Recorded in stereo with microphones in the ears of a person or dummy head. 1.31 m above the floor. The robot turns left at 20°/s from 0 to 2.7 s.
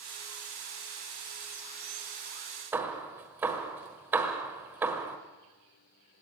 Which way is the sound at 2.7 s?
5° right (ahead or behind).